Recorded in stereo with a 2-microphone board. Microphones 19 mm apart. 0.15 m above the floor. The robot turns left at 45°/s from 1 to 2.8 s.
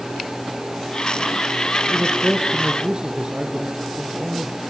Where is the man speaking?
25° right, 2.5 m; by 4.5 s 65° right, 2.5 m.